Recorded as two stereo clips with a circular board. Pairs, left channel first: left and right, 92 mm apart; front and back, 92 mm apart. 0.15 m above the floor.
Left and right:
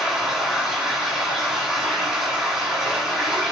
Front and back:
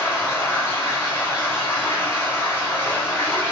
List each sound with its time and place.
0.0 s running water: 10° right, 1.2 m